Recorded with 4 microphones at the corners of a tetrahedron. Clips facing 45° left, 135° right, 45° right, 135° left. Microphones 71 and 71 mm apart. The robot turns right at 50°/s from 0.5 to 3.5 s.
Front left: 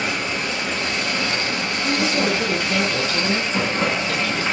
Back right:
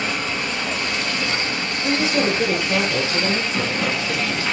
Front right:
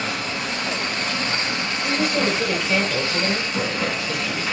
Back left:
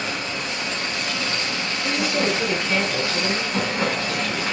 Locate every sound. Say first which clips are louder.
0.0 s running water: even, front right 1 dB; 35° right, 2.5 m; by 4.5 s 115° left, 2.5 m
1.8 s a woman speaking: back right 1 dB, front right 1 dB; 170° right, 1.4 m; by 4.4 s 90° right, 1.4 m